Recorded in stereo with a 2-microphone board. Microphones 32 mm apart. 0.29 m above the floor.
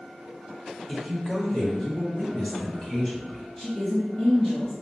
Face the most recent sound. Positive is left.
turn(degrees=15)  # may be behind; listen again after turning